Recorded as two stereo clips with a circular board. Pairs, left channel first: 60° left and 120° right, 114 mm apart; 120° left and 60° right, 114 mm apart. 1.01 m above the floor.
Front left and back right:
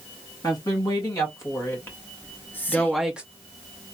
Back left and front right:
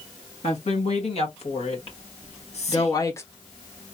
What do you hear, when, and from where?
0.4 s a woman speaking: 115° left, 2 m; by 3.2 s 165° left, 0.8 m
2.2 s whispering: 135° left, 1.2 m